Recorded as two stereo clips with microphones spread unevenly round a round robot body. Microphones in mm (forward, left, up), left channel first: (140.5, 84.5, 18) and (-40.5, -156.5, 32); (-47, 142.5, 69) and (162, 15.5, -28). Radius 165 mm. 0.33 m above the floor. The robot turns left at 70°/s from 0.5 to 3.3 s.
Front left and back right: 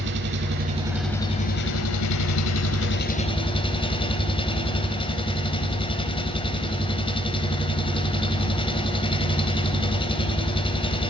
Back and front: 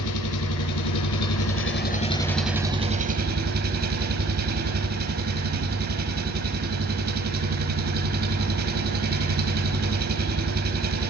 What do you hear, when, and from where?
0.0 s an engine running: straight behind, 1.4 m; by 11.1 s 15° right, 1.4 m